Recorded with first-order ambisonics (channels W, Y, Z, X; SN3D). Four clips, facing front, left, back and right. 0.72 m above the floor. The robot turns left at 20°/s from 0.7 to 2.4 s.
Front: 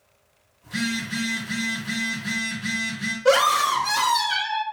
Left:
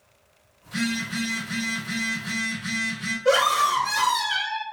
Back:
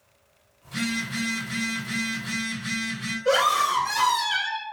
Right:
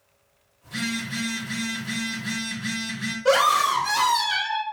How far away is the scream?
About 1.0 m.